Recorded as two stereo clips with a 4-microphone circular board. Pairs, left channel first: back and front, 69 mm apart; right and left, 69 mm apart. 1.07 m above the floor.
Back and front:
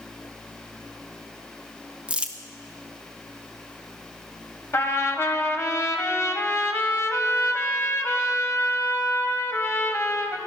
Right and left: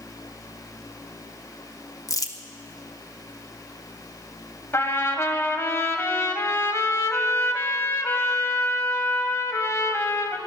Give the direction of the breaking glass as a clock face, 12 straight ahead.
No breaking glass in this recording.